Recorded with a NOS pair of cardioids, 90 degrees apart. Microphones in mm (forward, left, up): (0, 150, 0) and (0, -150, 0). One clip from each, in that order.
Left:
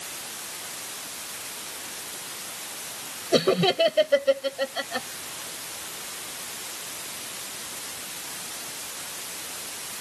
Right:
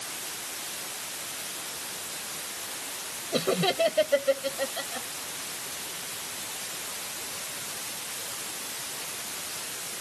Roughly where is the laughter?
Left.